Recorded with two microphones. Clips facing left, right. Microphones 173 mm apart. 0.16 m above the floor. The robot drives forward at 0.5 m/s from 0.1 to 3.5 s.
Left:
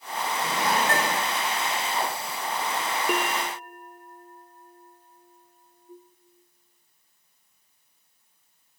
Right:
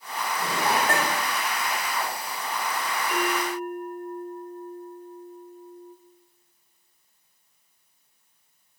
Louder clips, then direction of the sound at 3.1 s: Right 3 dB; 65° left (ahead or behind).